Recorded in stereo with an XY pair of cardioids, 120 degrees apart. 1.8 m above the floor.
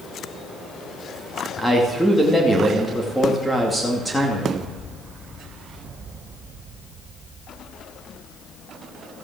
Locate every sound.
1.6 s a man speaking: 5° left, 2.5 m